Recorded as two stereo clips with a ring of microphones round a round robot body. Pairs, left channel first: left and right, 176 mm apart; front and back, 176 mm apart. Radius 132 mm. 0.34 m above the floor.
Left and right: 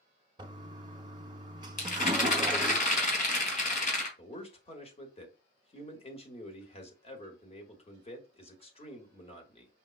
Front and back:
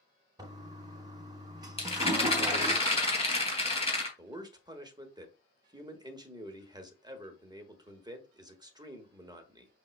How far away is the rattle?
About 3 m.